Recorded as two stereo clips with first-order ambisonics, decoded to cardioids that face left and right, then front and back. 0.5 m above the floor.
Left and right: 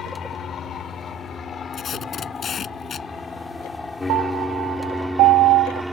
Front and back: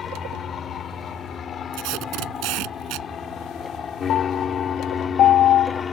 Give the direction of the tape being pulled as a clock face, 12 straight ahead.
7 o'clock.